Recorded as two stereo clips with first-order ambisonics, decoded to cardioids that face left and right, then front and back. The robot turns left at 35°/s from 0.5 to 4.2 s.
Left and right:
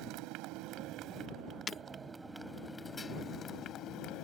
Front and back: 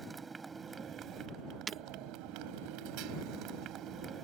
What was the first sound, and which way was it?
A motorcycle, 110° right.